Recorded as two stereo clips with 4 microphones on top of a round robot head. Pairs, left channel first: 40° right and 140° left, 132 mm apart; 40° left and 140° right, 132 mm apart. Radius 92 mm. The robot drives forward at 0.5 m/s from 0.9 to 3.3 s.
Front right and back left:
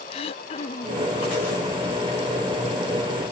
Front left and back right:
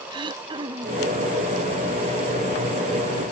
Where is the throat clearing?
85° right; by 1.1 s 95° right.